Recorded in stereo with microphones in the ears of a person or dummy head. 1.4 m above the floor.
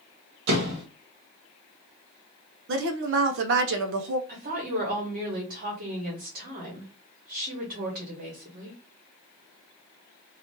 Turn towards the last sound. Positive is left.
turn(degrees=-50)  # may be behind; listen again after turning